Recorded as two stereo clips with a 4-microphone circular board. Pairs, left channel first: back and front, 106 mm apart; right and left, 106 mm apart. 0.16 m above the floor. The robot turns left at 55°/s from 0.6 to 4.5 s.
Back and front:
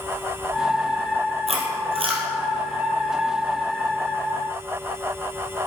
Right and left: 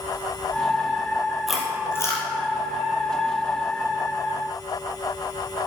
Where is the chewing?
5° left, 2.5 m; by 2.2 s 40° right, 2.5 m.